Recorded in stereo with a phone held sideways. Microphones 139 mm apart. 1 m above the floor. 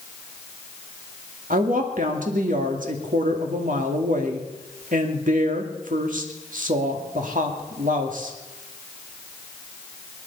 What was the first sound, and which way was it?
A woman speaking, 70° right (ahead or behind).